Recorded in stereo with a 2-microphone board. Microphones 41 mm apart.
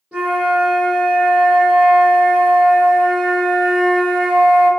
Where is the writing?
I don't hear writing.